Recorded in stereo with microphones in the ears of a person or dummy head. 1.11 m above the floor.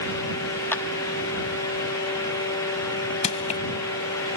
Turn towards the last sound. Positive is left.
turn(degrees=35)  # may be behind; listen again after turning